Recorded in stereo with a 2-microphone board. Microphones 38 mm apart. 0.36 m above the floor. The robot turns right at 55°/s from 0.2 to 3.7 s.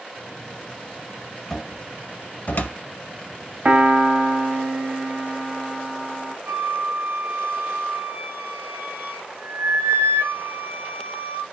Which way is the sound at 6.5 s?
70° right (ahead or behind).